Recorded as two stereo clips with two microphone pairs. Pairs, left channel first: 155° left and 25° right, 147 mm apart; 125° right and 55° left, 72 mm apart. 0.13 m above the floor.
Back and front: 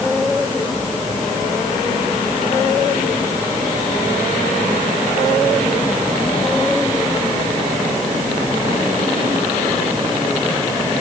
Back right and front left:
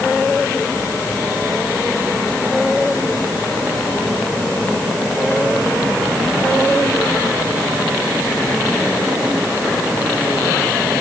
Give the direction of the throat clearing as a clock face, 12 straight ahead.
I don't hear throat clearing.